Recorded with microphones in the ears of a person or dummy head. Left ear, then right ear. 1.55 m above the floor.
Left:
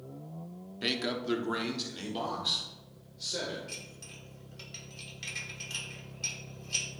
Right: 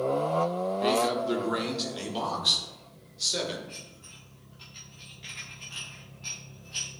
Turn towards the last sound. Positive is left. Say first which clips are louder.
# left 1 dB
turn(degrees=65)  # may be behind; listen again after turning